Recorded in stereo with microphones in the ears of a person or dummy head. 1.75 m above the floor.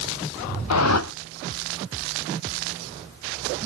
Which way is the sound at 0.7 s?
85° left.